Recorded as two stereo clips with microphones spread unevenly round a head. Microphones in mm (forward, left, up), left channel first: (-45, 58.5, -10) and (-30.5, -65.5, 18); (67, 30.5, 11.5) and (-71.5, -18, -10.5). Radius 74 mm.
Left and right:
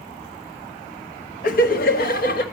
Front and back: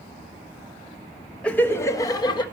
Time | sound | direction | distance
1.4 | laughter | 100° left | 1.0 m